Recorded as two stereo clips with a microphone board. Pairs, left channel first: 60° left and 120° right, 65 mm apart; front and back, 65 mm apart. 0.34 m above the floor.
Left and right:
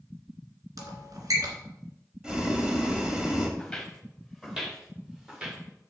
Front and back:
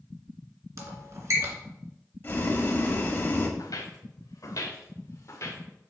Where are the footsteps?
25° right, 2.0 m; by 5.6 s 45° right, 3 m.